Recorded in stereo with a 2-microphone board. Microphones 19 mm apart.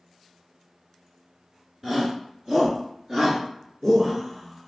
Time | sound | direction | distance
1.8 | a shout | 30° right (ahead or behind) | 1.7 m